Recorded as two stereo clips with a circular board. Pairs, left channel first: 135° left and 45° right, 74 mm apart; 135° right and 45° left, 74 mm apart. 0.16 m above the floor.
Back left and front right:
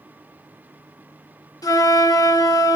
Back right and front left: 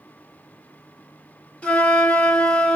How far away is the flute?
About 1.4 m.